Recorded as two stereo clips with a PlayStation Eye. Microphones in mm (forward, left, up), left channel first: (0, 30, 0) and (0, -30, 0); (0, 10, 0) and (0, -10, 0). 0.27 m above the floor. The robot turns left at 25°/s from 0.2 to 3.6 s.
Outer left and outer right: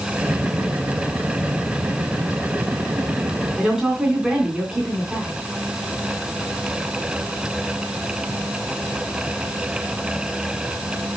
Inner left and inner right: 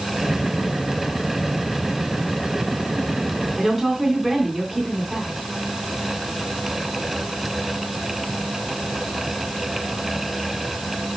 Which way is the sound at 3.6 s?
10° right (ahead or behind).